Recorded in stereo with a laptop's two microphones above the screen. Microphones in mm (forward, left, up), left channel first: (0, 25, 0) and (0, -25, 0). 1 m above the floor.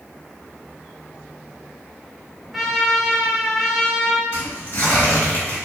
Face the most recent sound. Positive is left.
turn(degrees=55)  # may be behind; listen again after turning